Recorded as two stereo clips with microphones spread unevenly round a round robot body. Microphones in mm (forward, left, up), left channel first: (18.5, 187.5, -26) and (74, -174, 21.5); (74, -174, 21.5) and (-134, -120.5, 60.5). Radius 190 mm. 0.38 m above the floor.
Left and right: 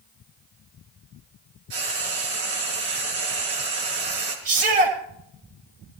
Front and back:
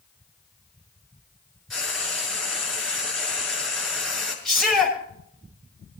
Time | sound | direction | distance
1.7 | frying | 105° right | 6.5 m
4.5 | a shout | 105° right | 9.5 m